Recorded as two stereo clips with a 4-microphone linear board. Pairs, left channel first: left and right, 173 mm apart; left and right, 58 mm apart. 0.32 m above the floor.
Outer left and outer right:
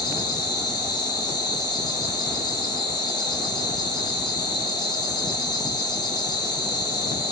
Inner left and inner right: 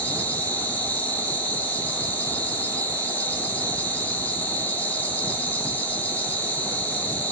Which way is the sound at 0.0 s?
25° left (ahead or behind).